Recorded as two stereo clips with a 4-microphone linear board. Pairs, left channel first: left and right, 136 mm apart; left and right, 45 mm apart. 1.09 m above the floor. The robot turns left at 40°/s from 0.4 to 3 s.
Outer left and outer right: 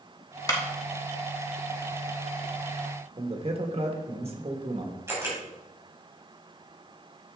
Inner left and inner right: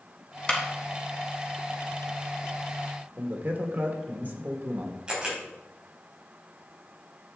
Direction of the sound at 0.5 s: 25° left (ahead or behind).